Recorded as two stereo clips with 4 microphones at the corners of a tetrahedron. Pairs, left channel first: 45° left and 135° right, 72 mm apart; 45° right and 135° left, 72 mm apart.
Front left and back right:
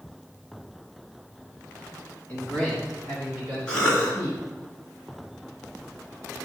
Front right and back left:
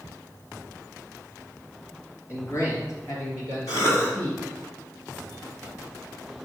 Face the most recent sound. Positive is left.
turn(degrees=-30)